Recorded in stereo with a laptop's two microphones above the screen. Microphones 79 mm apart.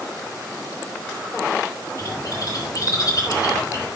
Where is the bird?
45° left (ahead or behind), 7 m.